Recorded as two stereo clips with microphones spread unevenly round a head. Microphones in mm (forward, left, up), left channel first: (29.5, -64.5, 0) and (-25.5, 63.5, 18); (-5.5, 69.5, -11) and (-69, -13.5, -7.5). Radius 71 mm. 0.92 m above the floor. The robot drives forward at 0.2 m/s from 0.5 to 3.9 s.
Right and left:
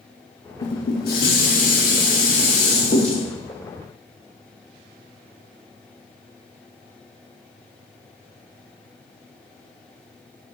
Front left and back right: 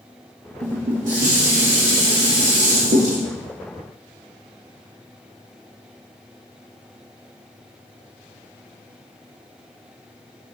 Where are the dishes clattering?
90° right, 1.0 m; by 3.2 s 115° right, 1.1 m.